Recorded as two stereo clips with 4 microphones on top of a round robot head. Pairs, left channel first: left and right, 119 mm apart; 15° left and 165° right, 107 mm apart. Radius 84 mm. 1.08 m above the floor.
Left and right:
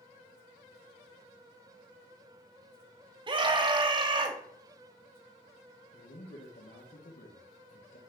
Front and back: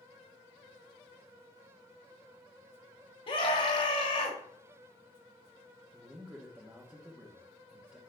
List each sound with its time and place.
3.3 s a scream: 40° right, 1.7 m
5.9 s a man speaking: 115° left, 1.3 m